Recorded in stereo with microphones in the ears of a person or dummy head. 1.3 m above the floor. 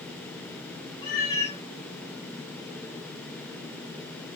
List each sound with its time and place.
1.0 s a cat meowing: 15° left (ahead or behind), 0.5 m